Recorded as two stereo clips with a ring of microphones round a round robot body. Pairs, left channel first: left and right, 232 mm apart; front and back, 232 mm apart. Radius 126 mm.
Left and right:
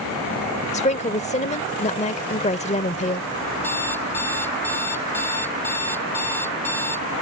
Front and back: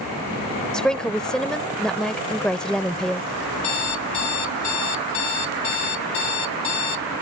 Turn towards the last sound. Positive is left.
turn(degrees=10)